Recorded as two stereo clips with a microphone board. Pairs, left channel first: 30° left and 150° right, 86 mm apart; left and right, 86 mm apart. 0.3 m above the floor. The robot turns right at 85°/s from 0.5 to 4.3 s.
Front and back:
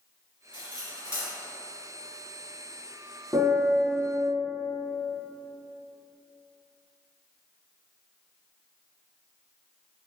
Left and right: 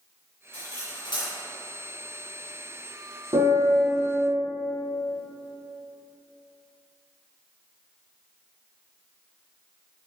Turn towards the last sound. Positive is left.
turn(degrees=-5)